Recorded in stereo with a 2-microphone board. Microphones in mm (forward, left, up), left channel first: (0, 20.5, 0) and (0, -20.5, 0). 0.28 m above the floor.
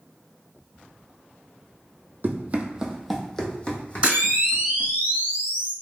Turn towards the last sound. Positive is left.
turn(degrees=-25)  # may be behind; listen again after turning